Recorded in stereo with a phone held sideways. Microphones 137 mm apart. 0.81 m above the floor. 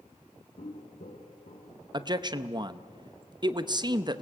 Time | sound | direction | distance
0.6 | footsteps | 80° left | 4 m
1.9 | a man speaking | 35° right (ahead or behind) | 0.8 m